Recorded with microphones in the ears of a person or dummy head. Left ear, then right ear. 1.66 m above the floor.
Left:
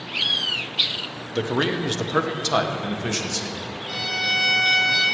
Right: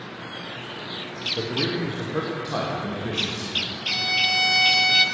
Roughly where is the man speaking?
Left.